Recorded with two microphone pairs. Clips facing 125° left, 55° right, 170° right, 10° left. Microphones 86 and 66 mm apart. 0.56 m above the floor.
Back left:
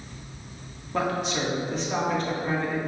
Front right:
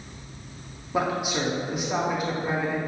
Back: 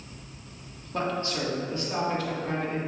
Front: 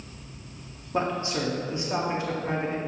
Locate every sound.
0.9 s a man speaking: 10° left, 1.2 m